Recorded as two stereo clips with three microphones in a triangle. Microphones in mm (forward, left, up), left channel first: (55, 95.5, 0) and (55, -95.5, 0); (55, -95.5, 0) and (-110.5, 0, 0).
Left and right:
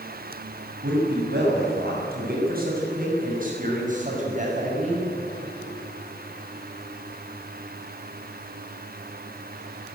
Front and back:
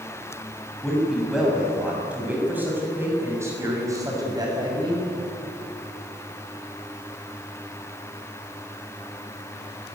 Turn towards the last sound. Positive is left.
turn(degrees=-145)